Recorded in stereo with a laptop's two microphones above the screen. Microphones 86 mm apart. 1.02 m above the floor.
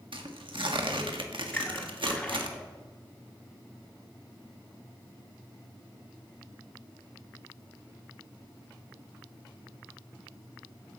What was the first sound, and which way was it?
Tearing paper, 80° right.